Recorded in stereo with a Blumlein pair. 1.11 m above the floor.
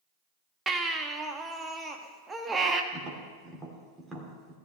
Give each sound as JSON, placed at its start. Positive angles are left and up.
{"t": 0.7, "sound": "a baby crying", "azimuth_deg": -15, "distance_m": 1.2}
{"t": 2.9, "sound": "tapping", "azimuth_deg": -10, "distance_m": 3.0}